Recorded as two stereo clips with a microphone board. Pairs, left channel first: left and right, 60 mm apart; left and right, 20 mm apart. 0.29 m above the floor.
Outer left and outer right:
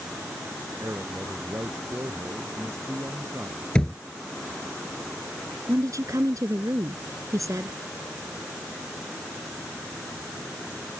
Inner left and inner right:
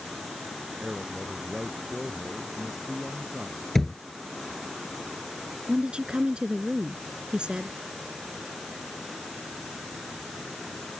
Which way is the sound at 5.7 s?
65° right (ahead or behind).